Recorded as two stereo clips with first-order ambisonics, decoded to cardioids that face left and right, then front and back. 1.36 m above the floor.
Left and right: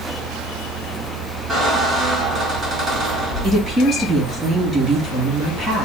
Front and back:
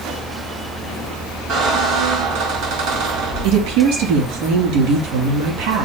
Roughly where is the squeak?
Behind.